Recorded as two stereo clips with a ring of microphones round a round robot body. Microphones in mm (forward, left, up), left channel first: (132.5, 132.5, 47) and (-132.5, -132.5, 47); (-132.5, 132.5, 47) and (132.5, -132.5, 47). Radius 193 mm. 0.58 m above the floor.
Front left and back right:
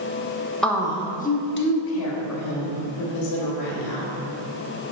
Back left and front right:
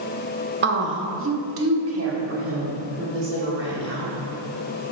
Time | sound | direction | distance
0.6 | a woman speaking | 40° right | 0.8 m